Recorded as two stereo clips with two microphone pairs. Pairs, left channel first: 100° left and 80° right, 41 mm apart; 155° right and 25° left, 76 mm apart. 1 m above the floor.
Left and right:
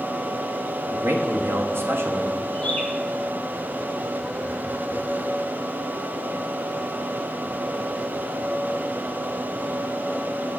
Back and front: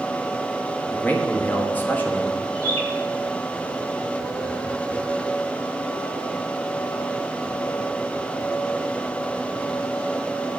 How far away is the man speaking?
About 1.2 m.